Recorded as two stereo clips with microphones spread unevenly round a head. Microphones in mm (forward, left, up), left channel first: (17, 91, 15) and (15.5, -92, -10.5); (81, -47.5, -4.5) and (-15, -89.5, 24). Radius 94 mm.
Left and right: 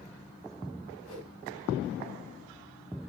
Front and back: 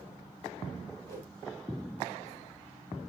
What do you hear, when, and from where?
1.1 s a whoosh: 110° left, 9 m